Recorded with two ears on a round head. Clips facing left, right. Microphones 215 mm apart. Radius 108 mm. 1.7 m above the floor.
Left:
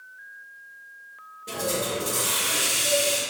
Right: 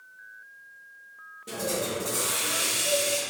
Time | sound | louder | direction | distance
1.5 | a hiss | left 2 dB | 5° right (ahead or behind) | 0.8 m